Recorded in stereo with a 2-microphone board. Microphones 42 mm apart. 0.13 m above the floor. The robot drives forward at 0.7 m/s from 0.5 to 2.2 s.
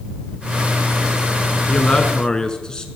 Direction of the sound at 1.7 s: 20° left (ahead or behind).